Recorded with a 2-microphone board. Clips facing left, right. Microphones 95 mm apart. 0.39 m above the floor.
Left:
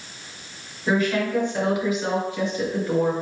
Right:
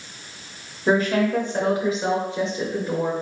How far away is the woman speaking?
About 1.4 m.